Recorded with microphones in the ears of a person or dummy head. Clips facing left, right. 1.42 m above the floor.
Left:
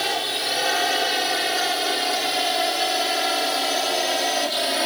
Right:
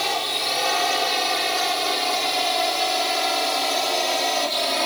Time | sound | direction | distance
0.0 | a drone | 10° left (ahead or behind) | ?